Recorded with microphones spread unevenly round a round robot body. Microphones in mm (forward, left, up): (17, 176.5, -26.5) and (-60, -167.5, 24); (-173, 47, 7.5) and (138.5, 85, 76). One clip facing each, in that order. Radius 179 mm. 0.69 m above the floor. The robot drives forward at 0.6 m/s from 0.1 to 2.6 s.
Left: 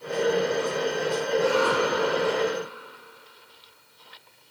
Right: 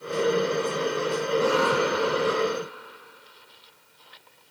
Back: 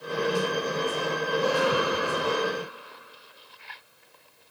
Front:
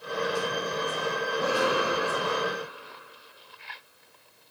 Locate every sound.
1.3 s a cough: 80° right, 5.5 m; by 2.4 s 85° right, 5.5 m